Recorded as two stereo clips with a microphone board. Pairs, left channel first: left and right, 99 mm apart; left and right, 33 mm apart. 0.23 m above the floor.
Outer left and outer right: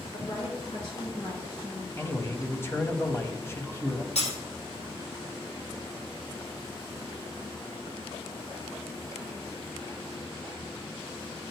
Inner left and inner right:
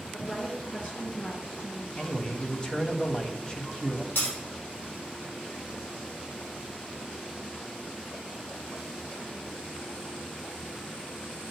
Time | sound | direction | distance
0.1 | a woman speaking | 55° left (ahead or behind) | 4 m
2.0 | a man speaking | 25° left (ahead or behind) | 1.1 m
4.2 | breaking glass | 85° left | 4 m